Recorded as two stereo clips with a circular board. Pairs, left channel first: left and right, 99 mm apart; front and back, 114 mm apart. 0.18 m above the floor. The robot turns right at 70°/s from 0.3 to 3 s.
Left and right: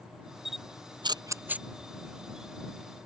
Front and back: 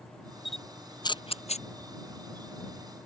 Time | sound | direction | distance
0.5 | a camera shutter | 95° right | ?